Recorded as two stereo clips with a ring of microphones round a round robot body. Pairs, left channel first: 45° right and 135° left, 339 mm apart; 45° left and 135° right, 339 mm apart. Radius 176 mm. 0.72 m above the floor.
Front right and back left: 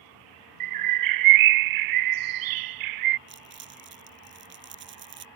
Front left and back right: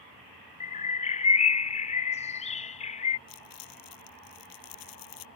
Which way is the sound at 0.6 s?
115° left.